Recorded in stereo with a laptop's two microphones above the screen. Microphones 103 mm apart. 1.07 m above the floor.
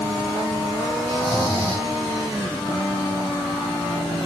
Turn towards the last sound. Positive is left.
turn(degrees=-55)  # may be behind; listen again after turning